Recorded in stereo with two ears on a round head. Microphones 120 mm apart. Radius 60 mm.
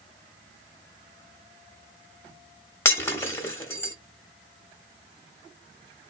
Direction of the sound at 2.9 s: 20° left (ahead or behind).